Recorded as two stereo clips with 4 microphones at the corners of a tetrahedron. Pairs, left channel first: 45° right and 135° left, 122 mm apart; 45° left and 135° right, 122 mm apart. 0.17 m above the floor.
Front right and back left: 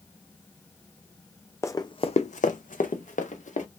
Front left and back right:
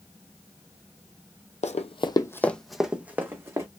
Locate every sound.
1.6 s running footsteps: 25° left, 0.5 m; by 3.7 s 70° right, 1.1 m